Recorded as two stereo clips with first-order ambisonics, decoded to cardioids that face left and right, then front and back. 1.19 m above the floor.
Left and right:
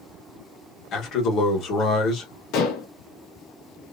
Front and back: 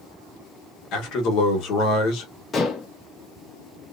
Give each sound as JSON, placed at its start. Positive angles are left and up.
{"t": 0.9, "sound": "a man speaking", "azimuth_deg": 40, "distance_m": 1.3}
{"t": 2.5, "sound": "dishes clattering", "azimuth_deg": 70, "distance_m": 0.8}